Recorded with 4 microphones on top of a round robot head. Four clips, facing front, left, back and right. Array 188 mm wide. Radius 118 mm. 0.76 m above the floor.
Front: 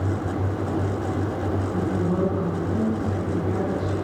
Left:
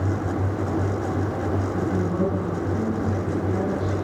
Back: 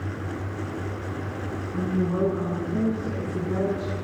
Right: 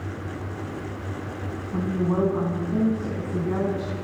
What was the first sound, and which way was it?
A woman speaking, 65° right.